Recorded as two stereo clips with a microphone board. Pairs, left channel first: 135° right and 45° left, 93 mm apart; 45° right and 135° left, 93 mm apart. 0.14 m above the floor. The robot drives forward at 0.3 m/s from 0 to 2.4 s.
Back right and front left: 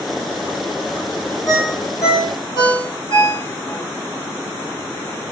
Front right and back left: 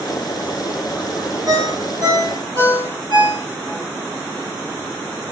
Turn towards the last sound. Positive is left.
turn(degrees=175)